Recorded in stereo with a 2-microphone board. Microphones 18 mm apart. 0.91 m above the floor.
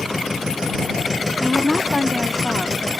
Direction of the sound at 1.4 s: 25° left (ahead or behind).